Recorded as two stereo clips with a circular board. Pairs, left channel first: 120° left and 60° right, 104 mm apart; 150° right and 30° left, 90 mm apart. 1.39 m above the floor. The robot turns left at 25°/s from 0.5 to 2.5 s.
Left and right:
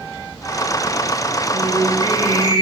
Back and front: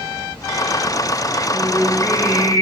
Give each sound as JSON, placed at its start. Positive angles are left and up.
{"t": 1.5, "sound": "singing", "azimuth_deg": -85, "distance_m": 6.0}